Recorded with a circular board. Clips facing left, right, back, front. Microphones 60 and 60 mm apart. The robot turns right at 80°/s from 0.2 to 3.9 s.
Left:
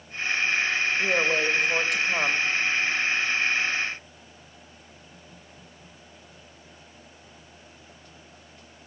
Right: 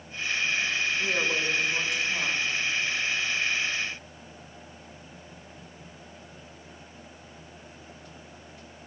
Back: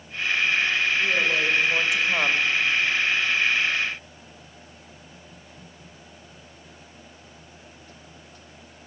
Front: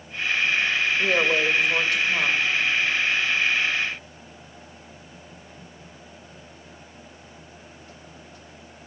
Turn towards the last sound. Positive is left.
turn(degrees=-95)